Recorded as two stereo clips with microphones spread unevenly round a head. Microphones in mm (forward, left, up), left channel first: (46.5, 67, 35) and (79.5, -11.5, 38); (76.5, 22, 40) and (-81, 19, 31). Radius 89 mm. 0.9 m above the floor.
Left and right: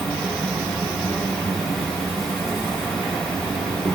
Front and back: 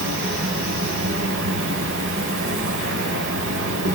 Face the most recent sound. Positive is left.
turn(degrees=-165)